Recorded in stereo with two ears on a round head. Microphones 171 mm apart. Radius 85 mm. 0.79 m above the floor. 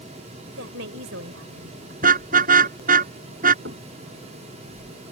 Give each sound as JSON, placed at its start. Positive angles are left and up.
{"t": 0.5, "sound": "a woman speaking", "side_deg": -75}
{"t": 2.0, "sound": "a car horn", "side_deg": -45}
{"t": 3.6, "sound": "knocking", "side_deg": -60}